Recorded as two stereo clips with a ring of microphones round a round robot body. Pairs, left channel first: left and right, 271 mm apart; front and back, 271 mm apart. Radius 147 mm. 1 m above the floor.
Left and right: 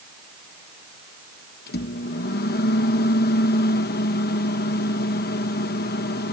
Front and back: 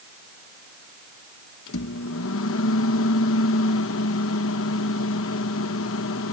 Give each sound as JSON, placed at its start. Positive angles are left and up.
{"t": 1.7, "sound": "a microwave", "azimuth_deg": 35}